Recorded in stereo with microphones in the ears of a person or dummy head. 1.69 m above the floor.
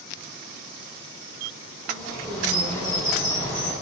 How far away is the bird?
About 1.7 m.